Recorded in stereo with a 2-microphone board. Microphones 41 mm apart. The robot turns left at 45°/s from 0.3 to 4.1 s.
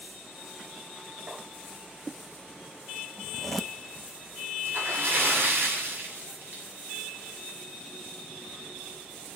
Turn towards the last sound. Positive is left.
turn(degrees=-65)  # may be behind; listen again after turning